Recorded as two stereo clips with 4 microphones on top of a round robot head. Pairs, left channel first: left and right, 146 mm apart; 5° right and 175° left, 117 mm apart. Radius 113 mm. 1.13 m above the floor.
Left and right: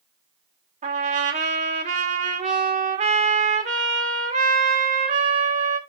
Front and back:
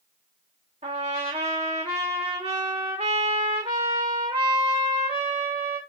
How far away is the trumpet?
About 1.1 m.